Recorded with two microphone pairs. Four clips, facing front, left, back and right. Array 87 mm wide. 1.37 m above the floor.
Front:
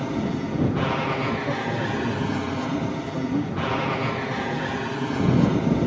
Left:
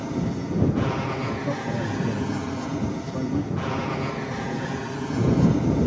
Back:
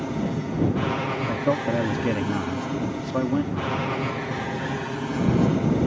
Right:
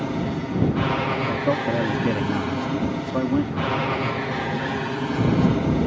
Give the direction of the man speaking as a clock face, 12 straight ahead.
5 o'clock.